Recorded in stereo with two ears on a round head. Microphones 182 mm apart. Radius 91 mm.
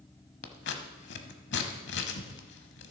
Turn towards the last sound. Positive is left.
turn(degrees=60)  # may be behind; listen again after turning